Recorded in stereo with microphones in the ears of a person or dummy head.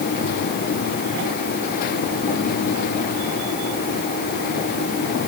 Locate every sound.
Only background noise.